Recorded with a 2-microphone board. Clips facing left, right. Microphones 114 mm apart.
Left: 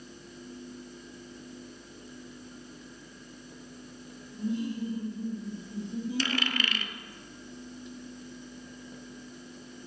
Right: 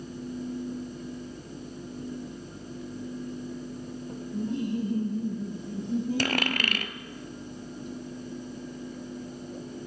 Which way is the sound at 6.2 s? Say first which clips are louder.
Right 3 dB; 55° right (ahead or behind).